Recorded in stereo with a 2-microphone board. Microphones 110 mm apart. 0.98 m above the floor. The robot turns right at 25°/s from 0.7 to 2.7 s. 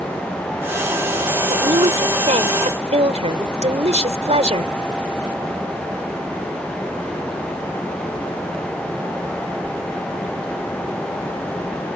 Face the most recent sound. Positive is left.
turn(degrees=-80)